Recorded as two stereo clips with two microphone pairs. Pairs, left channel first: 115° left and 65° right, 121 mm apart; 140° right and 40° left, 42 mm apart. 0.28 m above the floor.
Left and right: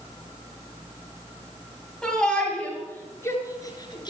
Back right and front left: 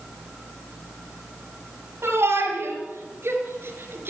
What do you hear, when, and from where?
2.0 s a shout: 30° left, 6 m; by 4.1 s 65° left, 4.5 m